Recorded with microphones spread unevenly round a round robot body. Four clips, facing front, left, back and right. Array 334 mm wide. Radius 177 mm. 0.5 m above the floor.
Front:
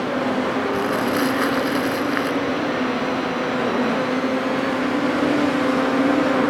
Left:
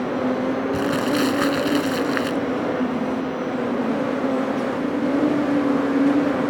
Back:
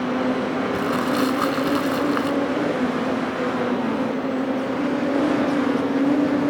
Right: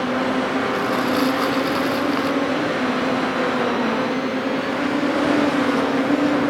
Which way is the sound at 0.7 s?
100° left.